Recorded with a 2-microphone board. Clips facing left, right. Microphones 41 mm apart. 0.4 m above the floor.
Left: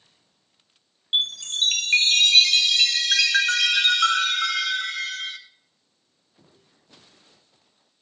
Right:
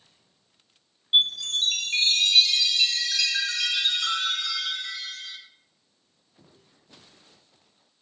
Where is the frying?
I don't hear frying.